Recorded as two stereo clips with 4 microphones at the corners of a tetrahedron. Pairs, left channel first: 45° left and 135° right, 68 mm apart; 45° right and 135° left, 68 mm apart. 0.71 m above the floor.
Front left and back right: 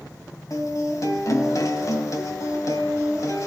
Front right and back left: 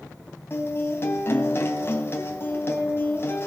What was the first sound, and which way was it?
A guitar, 10° left.